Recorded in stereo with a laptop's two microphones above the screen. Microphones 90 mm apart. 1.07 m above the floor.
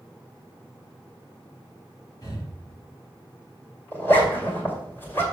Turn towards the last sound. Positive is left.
turn(degrees=25)  # may be behind; listen again after turning